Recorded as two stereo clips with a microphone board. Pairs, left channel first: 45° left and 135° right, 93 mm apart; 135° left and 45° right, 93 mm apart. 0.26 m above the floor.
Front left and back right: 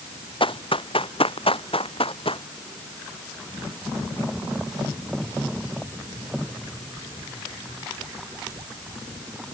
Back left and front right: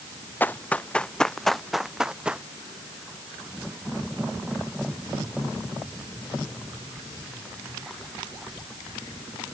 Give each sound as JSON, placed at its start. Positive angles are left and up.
{"t": 0.4, "sound": "running footsteps", "azimuth_deg": 65}